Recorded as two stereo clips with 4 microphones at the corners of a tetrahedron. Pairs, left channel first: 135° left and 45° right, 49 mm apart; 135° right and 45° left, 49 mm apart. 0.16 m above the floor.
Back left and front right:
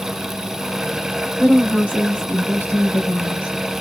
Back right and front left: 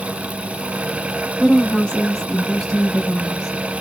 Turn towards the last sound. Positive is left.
turn(degrees=120)